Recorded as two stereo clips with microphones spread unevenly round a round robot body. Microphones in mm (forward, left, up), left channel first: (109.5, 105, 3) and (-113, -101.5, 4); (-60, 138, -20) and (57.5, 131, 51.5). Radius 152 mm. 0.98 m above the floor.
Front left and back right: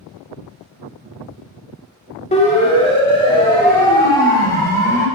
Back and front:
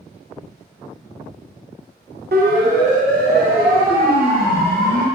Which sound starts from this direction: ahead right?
A siren, at 2.3 s.